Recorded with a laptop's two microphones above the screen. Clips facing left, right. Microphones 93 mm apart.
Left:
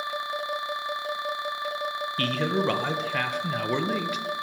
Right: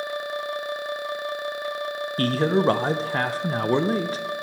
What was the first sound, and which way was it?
A man speaking, 35° right (ahead or behind).